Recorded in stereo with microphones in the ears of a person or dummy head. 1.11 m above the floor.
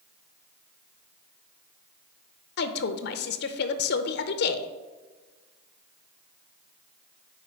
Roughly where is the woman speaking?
Left.